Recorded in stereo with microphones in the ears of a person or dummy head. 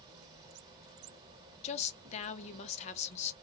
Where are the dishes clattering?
I don't hear dishes clattering.